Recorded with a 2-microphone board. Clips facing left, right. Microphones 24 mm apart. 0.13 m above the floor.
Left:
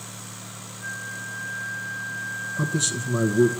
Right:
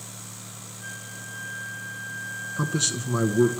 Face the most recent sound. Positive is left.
turn(degrees=-20)  # may be behind; listen again after turning